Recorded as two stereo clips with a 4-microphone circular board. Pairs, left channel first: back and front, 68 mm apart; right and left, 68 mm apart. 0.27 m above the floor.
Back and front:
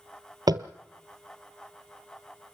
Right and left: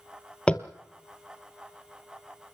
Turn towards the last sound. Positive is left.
turn(degrees=-15)